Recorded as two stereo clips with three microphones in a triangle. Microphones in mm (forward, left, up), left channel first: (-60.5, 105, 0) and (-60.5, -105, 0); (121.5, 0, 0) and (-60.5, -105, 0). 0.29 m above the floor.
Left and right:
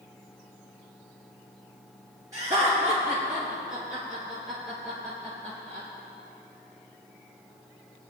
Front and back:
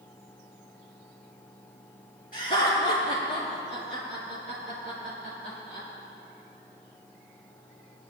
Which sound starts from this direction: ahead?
Laughter, at 2.3 s.